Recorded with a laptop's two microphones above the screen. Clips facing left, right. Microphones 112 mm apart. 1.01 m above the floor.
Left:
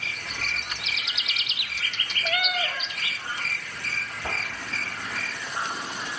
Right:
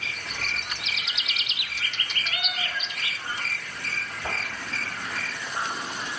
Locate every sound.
2.2 s a cat meowing: 75° left (ahead or behind), 2 m